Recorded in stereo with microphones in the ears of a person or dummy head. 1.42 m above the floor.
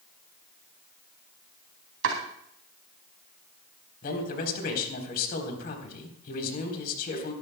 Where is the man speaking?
60° left (ahead or behind), 3.5 m.